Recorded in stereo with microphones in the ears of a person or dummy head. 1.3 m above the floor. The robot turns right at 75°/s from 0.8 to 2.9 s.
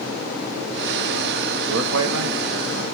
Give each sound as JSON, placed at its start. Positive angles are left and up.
{"t": 1.7, "sound": "a man speaking", "azimuth_deg": -125, "distance_m": 0.6}